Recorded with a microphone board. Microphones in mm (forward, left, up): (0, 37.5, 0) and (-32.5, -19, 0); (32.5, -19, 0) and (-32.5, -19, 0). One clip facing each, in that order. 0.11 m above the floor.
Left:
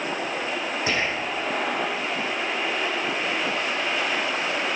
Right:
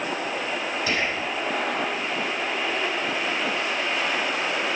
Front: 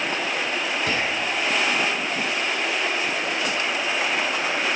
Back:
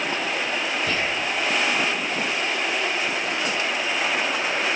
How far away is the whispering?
About 5.5 m.